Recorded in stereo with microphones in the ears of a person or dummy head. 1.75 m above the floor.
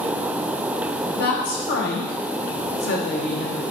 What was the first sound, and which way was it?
A woman speaking, 60° left (ahead or behind).